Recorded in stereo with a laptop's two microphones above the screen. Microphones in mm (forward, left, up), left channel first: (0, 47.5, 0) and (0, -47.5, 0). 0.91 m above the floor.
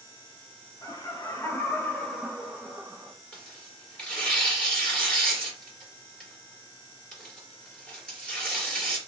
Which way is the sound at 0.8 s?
40° left (ahead or behind).